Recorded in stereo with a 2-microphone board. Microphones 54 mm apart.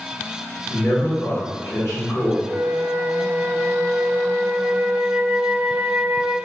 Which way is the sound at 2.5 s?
30° right (ahead or behind).